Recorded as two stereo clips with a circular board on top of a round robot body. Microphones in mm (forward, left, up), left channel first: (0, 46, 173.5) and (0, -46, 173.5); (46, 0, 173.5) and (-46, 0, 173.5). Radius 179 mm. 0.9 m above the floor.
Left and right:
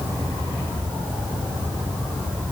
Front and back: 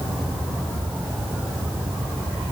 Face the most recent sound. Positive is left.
No sound to turn to.